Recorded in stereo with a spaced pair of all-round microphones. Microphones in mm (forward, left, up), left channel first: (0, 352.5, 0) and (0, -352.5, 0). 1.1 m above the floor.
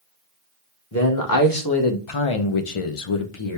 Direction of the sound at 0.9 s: 25° left (ahead or behind).